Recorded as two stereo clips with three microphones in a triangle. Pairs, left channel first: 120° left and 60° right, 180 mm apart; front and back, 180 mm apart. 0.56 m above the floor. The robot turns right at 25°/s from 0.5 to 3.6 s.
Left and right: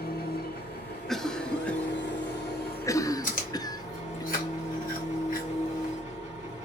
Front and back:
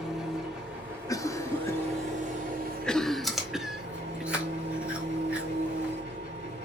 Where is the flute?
No flute in this recording.